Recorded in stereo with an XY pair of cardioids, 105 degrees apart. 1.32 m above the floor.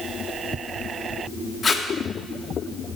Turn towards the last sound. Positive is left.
turn(degrees=35)